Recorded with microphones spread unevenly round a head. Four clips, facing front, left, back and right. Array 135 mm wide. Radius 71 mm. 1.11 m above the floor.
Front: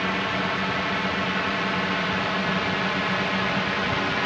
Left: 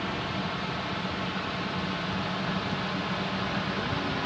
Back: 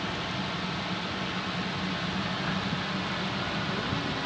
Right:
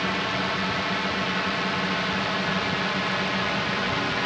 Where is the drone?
35° right; by 4.3 s 30° right.